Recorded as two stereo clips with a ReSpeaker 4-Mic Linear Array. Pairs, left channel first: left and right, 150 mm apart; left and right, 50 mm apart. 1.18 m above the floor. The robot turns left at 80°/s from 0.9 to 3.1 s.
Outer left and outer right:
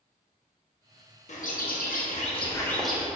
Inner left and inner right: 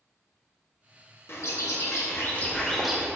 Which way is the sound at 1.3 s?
125° left.